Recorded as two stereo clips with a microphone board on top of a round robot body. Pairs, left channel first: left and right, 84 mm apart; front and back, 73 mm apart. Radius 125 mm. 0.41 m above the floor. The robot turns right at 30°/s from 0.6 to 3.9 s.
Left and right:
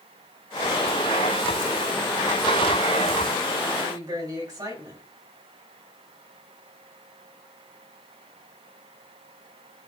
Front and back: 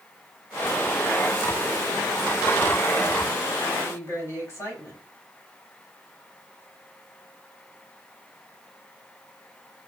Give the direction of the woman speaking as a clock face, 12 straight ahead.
2 o'clock.